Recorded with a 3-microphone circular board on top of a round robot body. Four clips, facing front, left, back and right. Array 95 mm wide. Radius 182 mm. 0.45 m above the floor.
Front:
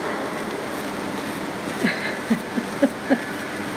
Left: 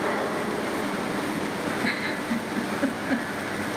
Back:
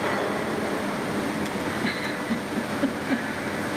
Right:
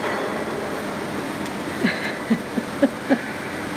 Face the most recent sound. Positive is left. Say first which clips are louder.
# right 4 dB, front 3 dB
turn(degrees=-50)